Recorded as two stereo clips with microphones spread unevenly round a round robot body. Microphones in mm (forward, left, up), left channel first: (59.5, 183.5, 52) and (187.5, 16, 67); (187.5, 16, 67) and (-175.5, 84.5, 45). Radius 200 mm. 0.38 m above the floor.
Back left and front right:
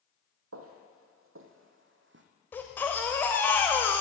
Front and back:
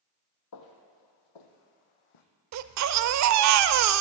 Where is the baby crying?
150° right, 0.6 m.